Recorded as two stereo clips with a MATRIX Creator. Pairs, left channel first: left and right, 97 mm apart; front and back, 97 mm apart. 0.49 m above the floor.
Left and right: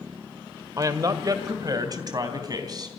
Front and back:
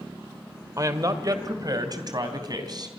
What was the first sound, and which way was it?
A woman speaking, 135° right.